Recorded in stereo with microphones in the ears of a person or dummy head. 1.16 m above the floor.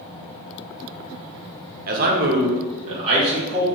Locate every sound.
1.9 s a man speaking: 50° right (ahead or behind), 0.6 m; by 3.6 s 25° right (ahead or behind), 1.1 m